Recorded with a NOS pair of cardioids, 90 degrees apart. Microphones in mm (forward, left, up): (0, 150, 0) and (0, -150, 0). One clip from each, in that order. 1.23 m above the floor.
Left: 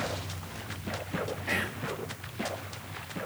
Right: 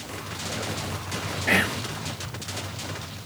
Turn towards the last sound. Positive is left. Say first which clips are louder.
# right 11 dB
turn(degrees=-60)